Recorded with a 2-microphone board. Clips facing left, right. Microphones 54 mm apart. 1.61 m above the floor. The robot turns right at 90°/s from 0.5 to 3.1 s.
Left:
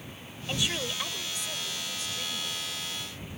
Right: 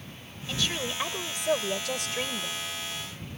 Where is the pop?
No pop in this recording.